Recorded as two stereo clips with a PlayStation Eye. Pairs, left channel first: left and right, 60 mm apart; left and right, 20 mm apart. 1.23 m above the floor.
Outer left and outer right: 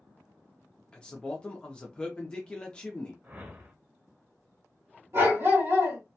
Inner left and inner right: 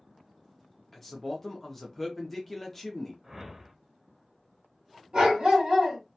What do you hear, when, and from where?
0.9 s a man speaking: 15° left (ahead or behind), 0.5 m
3.2 s a whoosh: 30° right (ahead or behind), 0.6 m
5.1 s a dog barking: 45° right (ahead or behind), 1.5 m